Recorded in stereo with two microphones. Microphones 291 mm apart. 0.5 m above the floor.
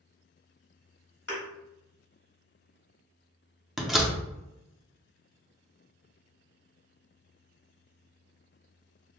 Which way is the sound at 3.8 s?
Centre (ahead or behind).